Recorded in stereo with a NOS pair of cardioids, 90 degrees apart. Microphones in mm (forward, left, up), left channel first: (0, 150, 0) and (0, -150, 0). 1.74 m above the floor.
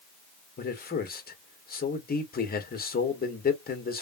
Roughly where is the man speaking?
Ahead left.